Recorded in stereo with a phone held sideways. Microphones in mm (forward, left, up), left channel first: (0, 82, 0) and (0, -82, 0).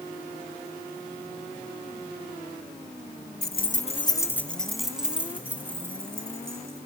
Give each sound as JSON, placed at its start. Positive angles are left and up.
{"t": 3.4, "sound": "keys jangling", "side_deg": 75, "distance_m": 0.6}